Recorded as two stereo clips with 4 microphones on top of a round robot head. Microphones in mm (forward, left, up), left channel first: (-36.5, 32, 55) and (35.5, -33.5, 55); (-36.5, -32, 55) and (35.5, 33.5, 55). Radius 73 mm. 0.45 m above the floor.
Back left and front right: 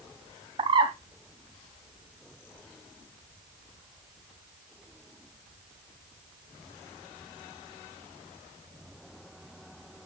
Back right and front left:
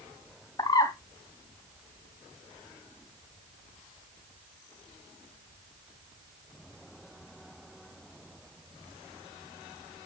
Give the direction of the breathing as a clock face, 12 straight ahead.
I don't hear breathing.